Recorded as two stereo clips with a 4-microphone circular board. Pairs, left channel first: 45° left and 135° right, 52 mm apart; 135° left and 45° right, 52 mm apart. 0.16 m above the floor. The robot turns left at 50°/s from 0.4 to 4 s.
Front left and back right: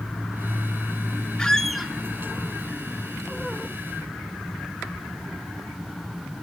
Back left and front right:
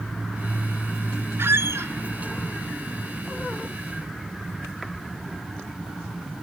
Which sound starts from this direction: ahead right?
A squeak, at 1.4 s.